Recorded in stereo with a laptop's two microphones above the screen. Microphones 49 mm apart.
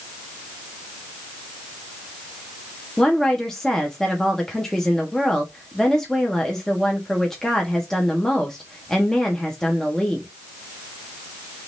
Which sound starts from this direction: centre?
A woman speaking, at 3.0 s.